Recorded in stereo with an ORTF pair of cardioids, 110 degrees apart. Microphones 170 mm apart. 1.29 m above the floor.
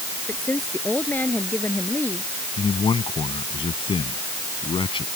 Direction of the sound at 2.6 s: 30° left.